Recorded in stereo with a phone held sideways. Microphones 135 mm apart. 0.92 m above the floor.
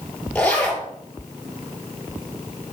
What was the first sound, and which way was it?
A zipper, 10° left (ahead or behind).